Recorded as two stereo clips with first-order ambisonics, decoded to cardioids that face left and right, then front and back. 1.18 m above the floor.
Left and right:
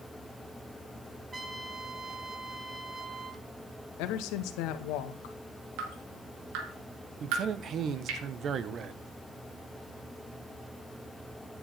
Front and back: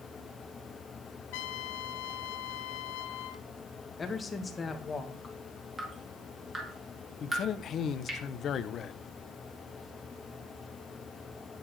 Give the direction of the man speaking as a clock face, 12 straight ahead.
2 o'clock.